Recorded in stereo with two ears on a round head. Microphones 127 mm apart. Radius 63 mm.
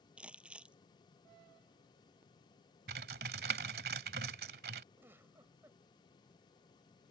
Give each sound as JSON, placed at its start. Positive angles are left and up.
{"t": 0.2, "sound": "crumpling", "side_deg": -10}
{"t": 2.9, "sound": "typing on a keyboard", "side_deg": -75}
{"t": 5.0, "sound": "a giggle", "side_deg": -15}